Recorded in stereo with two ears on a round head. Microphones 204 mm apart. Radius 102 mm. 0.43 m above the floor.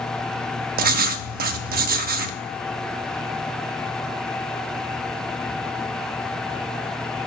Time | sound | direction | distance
0.8 | writing | 40° right (ahead or behind) | 0.7 m